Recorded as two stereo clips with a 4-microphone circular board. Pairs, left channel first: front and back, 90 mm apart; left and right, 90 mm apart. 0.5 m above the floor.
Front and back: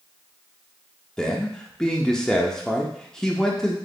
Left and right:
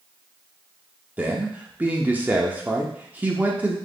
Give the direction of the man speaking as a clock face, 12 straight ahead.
2 o'clock.